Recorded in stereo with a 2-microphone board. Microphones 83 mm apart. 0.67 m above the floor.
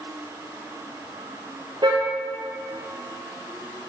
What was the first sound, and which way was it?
A car horn, 60° right (ahead or behind).